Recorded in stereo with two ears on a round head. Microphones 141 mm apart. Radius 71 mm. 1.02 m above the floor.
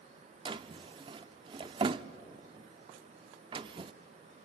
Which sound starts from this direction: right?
A drawer, at 0.5 s.